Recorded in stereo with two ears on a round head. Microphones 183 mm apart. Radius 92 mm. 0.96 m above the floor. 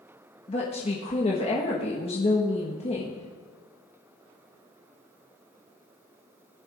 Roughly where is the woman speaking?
Left.